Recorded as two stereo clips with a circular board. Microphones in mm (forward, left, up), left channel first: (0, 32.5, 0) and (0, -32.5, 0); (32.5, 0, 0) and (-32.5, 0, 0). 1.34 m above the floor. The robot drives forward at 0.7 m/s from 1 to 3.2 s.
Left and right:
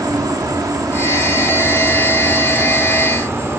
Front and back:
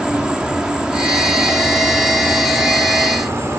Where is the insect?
105° right; by 3.6 s 135° right.